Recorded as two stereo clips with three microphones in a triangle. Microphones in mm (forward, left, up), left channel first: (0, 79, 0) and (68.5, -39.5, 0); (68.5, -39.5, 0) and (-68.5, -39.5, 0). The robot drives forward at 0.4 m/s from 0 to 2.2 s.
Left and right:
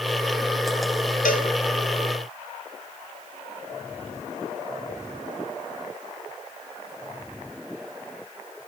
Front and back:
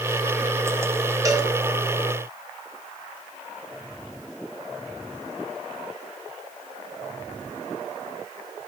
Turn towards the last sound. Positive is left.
turn(degrees=130)